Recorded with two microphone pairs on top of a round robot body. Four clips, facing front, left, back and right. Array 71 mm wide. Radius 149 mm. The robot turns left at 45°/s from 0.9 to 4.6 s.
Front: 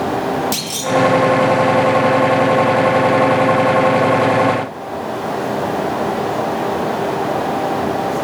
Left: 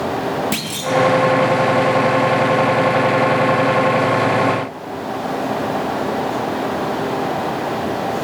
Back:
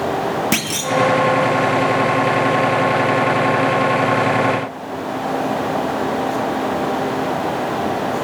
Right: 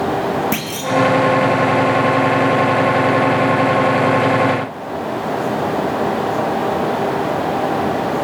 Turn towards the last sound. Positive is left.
turn(degrees=30)